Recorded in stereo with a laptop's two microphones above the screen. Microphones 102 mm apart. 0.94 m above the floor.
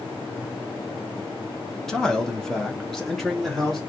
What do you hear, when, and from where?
1.9 s a man speaking: 5° left (ahead or behind), 0.8 m; by 3.8 s centre (ahead or behind), 0.9 m